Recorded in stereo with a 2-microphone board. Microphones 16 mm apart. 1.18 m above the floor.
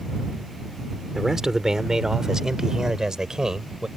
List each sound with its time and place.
1.1 s a man speaking: 30° right (ahead or behind); by 3.9 s 45° right (ahead or behind)